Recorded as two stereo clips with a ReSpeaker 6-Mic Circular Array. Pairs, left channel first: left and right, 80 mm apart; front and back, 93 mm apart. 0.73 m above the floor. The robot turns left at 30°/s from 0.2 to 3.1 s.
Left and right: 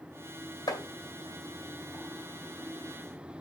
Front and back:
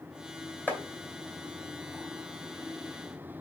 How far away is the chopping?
About 2.5 m.